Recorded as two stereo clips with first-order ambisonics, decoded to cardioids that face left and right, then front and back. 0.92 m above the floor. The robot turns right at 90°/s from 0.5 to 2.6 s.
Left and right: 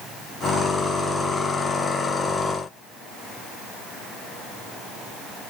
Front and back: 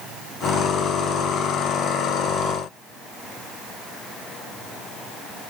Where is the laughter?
No laughter in this recording.